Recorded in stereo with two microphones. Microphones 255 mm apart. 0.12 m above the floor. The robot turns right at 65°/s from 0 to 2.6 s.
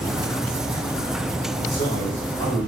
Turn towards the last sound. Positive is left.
turn(degrees=15)  # may be behind; listen again after turning